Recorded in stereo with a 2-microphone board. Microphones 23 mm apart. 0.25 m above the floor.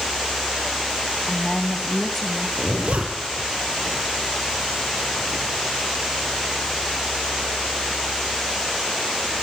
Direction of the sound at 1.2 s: 40° left (ahead or behind).